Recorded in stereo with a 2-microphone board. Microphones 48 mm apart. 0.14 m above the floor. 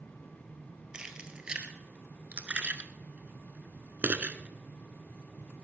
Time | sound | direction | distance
0.9 | keys jangling | 15° right (ahead or behind) | 1.9 m